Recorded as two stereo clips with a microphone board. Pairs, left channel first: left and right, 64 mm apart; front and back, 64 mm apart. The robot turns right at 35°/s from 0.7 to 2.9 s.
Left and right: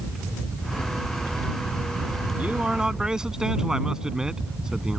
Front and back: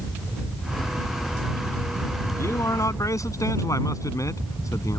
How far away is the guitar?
No guitar in this recording.